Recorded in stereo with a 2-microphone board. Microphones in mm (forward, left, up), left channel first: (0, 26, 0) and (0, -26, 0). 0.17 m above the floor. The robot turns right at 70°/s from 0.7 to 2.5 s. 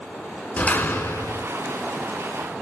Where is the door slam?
45° left, 1.6 m; by 1.5 s 95° left, 1.6 m.